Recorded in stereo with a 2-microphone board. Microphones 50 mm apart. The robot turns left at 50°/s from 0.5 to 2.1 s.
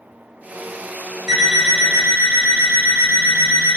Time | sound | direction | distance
1.3 | an alarm clock | 10° right | 1.6 m